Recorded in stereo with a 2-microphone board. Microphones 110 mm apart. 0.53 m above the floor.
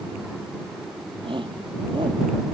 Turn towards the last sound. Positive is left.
turn(degrees=-50)  # may be behind; listen again after turning